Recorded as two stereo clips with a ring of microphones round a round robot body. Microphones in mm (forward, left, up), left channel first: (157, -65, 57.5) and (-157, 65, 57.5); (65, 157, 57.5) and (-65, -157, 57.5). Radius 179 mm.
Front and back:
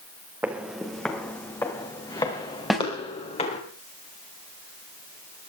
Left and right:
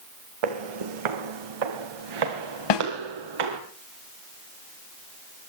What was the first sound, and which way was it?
Footsteps, 120° right.